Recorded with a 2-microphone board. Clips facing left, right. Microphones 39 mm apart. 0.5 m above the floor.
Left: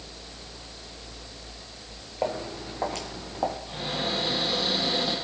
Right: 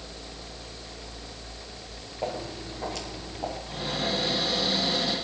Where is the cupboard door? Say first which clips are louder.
Even; 25° left (ahead or behind), 6 m.